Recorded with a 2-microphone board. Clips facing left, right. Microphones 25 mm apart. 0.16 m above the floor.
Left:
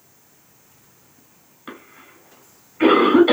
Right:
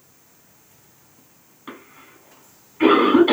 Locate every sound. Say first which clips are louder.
1.7 s a cough: left 1 dB; 10° left (ahead or behind), 1.1 m